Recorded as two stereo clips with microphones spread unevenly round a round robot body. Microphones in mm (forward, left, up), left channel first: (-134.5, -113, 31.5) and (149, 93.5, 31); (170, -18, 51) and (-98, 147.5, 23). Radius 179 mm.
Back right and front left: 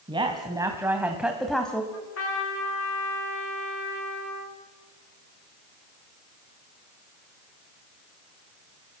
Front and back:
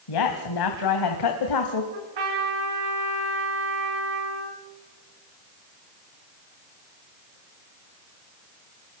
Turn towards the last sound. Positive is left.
turn(degrees=160)